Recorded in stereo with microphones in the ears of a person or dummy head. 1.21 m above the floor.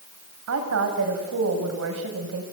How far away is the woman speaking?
About 6.5 m.